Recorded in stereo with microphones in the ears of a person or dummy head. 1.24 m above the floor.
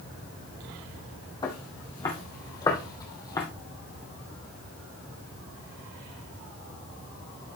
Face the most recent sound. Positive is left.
turn(degrees=20)  # may be behind; listen again after turning